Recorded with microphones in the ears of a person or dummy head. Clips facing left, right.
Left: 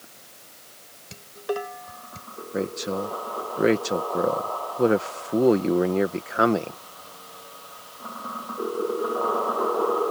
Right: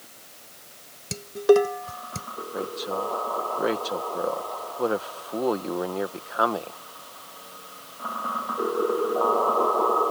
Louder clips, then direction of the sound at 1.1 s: Right 12 dB; 65° right (ahead or behind).